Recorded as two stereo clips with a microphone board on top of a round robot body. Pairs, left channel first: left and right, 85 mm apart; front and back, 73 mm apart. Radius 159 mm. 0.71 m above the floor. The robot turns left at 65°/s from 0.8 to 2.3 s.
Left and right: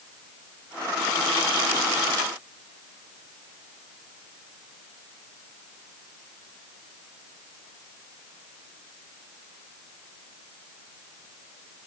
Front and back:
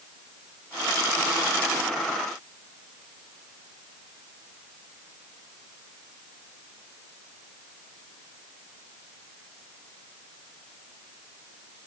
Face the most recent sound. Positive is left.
No sound to turn to.